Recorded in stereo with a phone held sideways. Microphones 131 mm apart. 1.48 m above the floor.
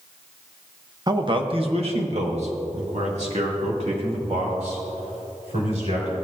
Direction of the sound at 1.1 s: 30° right (ahead or behind).